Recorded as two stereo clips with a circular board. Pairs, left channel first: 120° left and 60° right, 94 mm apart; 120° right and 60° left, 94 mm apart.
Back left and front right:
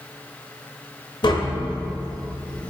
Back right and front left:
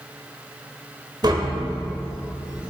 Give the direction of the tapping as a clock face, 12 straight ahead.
9 o'clock.